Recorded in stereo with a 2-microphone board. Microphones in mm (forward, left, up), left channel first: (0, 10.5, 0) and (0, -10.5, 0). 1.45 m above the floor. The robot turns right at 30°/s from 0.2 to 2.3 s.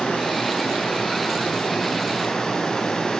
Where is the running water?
75° left, 7.5 m; by 3.2 s 140° left, 7.5 m.